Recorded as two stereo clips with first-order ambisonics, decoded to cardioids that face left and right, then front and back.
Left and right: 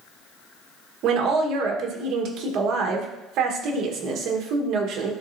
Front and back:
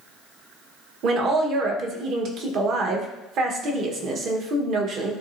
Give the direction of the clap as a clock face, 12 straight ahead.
I don't hear a clap.